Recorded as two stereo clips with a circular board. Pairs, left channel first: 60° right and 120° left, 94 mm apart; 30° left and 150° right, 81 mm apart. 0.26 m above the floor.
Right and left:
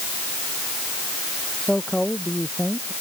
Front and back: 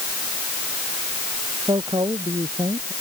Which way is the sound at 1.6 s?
145° right.